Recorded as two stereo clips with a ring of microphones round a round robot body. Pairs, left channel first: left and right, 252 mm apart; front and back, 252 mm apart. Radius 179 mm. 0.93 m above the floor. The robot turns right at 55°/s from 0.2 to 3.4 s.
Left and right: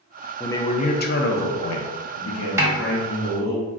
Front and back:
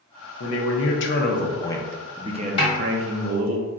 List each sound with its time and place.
0.4 s a man speaking: 5° left, 0.6 m; by 3.6 s 170° left, 0.6 m
2.6 s a snare drum: 30° right, 0.6 m; by 2.8 s 20° right, 0.6 m